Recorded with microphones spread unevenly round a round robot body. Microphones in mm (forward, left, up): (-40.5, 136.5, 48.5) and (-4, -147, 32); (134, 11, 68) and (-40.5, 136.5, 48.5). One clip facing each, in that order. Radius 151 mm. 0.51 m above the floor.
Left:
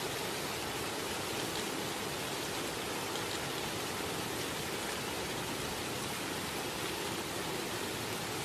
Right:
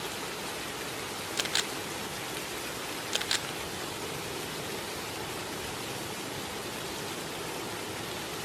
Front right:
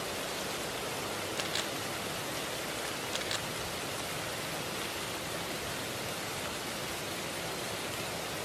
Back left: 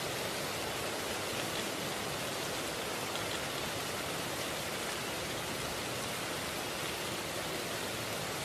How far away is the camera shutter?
About 0.7 m.